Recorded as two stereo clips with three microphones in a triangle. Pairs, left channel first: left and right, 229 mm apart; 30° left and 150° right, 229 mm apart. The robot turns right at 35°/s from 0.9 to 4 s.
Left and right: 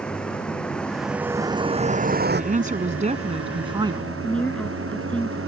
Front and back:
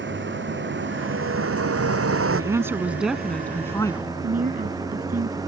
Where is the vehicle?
175° left; by 5.5 s 75° right.